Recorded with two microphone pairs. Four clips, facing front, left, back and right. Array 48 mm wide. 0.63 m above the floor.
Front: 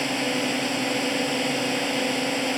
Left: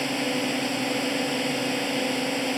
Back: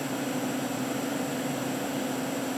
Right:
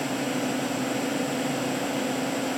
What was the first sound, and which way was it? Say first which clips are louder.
A drone: left 1 dB, front 5 dB; 25° left.